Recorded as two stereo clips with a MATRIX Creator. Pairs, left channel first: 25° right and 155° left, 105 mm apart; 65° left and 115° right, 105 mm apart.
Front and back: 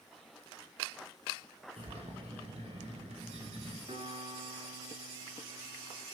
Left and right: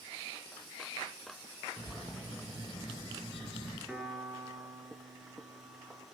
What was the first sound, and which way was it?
A bird, 155° left.